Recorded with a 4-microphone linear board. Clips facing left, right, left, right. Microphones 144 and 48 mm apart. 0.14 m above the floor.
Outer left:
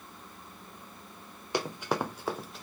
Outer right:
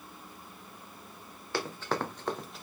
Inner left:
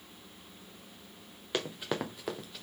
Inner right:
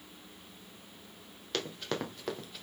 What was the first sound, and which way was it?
Running footsteps, 20° left (ahead or behind).